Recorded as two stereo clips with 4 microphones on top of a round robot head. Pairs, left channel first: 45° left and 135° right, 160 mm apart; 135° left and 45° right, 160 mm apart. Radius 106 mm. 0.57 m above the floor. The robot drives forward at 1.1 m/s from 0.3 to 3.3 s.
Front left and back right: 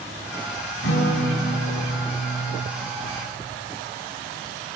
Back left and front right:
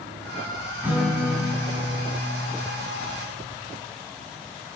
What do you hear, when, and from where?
0.8 s a guitar: 30° left, 4.5 m; by 2.7 s 55° left, 3 m